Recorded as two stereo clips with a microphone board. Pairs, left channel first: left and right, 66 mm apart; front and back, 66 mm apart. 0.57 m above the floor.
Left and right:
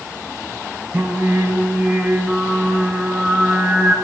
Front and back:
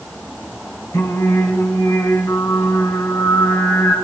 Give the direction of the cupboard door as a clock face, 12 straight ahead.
I don't hear a cupboard door.